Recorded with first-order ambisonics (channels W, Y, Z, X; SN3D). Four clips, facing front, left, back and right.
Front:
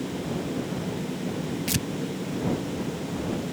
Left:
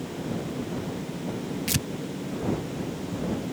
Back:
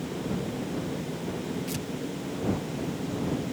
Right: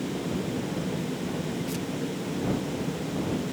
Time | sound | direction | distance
1.7 | tearing paper | 50° left | ?